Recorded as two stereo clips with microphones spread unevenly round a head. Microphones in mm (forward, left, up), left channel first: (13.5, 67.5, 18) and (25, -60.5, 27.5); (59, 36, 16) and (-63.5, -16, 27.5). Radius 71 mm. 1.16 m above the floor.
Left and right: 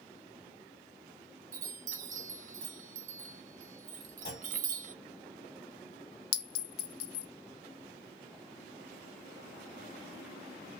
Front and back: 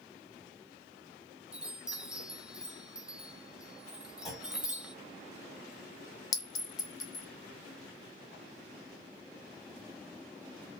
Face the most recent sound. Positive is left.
turn(degrees=90)